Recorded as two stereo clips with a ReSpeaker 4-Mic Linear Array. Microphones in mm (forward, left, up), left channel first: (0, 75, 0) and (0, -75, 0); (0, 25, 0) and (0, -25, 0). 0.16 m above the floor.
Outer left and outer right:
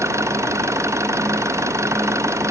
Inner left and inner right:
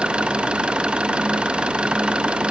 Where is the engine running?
20° right (ahead or behind).